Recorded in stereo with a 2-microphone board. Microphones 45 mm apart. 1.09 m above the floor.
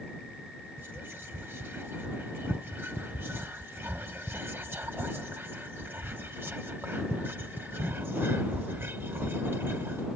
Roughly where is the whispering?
Right.